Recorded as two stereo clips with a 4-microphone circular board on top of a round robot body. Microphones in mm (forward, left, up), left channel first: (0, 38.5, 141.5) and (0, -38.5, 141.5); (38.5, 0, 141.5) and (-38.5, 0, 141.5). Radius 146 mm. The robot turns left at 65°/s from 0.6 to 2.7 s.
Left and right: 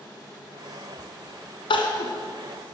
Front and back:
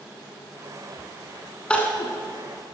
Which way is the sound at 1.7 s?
80° left.